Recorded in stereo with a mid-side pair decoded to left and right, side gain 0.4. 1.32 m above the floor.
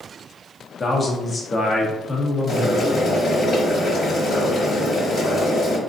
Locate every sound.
0.8 s a man speaking: 35° left, 1.2 m
2.5 s boiling: 60° left, 1.9 m